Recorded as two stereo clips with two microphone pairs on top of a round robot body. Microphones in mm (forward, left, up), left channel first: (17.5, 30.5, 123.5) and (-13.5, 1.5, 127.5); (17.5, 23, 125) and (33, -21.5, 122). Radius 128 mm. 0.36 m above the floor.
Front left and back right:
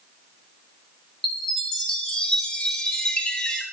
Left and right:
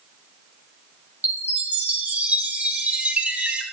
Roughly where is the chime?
Ahead.